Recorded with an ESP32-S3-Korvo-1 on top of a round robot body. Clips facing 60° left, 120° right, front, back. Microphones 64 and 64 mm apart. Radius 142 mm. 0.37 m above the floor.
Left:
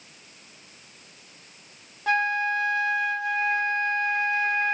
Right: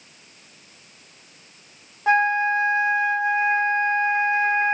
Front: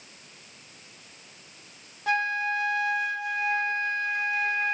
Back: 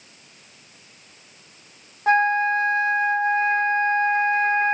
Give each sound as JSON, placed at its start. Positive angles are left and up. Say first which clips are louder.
{"t": 2.1, "sound": "a flute", "louder": "right 5 dB, back 8 dB", "azimuth_deg": -170, "distance_m": 0.5}